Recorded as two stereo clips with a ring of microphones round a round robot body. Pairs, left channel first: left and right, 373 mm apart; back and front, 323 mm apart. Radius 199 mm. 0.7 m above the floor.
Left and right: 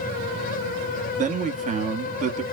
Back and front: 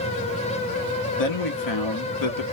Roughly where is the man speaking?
Behind.